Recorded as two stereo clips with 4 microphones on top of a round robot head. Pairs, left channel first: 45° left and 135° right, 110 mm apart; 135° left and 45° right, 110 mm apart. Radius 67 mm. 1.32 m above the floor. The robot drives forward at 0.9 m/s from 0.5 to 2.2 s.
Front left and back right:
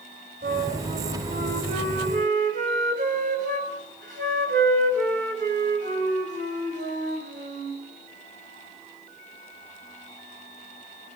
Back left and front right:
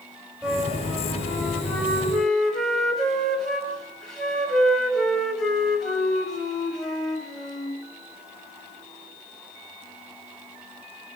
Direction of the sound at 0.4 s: 125° right.